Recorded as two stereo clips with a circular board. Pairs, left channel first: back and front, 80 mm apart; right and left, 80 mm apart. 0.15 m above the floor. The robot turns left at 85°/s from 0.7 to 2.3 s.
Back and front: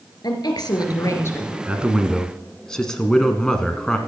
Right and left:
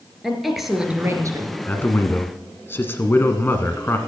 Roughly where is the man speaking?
Ahead right.